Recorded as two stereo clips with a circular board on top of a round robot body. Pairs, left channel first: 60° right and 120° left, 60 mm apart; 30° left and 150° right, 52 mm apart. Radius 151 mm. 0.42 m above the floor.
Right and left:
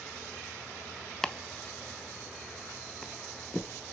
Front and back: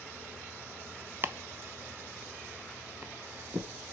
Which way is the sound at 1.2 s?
135° right.